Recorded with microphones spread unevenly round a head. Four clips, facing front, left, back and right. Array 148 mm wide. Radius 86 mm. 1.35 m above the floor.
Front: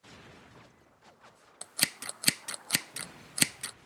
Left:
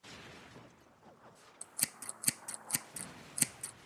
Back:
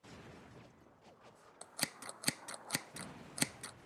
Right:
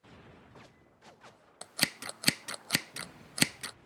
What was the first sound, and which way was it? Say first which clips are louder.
Scissors: right 11 dB, front 6 dB; 40° right.